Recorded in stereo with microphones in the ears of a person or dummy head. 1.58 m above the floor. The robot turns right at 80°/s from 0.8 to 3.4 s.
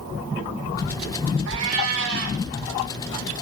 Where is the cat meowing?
115° right, 5.5 m; by 2.4 s 40° right, 5.5 m.